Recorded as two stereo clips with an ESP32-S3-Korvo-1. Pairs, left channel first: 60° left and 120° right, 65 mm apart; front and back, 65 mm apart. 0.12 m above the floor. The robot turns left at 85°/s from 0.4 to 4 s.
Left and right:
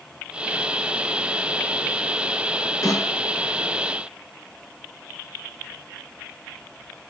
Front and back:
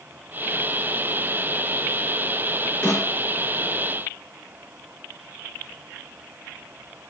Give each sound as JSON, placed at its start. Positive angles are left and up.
{"t": 2.8, "sound": "a snare drum", "azimuth_deg": 50, "distance_m": 2.0}